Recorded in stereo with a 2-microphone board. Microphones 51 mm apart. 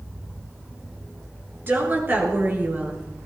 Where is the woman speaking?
40° right (ahead or behind), 5.5 m.